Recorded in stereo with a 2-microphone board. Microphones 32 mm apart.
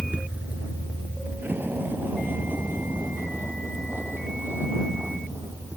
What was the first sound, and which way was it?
A vehicle, 65° right (ahead or behind).